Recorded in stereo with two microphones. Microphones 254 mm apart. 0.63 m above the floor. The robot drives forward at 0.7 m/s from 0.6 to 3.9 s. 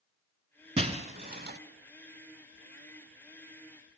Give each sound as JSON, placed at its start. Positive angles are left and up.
{"t": 0.8, "sound": "breaking glass", "side_deg": -25, "distance_m": 1.2}